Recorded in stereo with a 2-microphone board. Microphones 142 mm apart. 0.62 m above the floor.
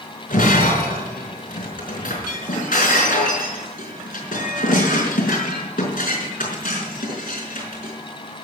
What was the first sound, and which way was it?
Breaking glass, 85° left.